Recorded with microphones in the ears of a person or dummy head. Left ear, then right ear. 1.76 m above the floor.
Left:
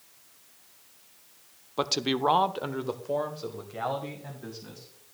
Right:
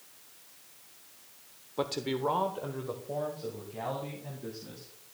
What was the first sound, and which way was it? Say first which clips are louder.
A man speaking: left 5 dB; 30° left (ahead or behind).